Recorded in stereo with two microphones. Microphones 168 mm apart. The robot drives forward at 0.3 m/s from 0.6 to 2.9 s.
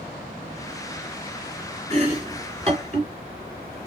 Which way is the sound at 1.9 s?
40° right (ahead or behind).